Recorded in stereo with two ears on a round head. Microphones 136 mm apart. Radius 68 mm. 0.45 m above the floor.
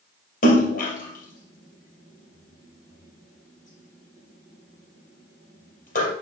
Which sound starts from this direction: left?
A splash, at 0.4 s.